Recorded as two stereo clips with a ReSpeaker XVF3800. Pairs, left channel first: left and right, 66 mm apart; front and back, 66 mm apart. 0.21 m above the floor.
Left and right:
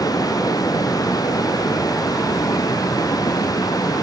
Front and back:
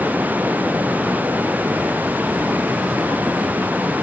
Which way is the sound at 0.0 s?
115° left.